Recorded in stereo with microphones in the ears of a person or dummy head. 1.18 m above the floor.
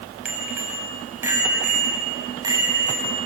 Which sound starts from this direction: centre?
A bicycle bell, at 0.2 s.